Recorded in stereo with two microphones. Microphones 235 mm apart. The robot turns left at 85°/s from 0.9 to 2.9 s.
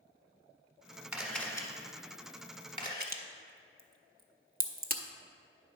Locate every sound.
1.1 s a camera shutter: 5° right (ahead or behind), 1.1 m; by 3.1 s 20° left (ahead or behind), 1.1 m
3.0 s a crack: 40° right (ahead or behind), 0.6 m